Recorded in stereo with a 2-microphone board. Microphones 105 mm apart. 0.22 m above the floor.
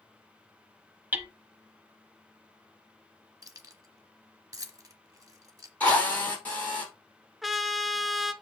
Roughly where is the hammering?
Centre.